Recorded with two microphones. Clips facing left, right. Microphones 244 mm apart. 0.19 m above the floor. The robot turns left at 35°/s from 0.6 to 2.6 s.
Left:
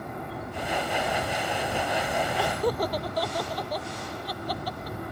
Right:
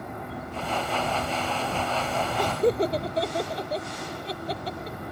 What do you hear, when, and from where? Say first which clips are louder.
2.4 s laughter: right 6 dB; 15° right (ahead or behind); by 5.0 s 25° right (ahead or behind)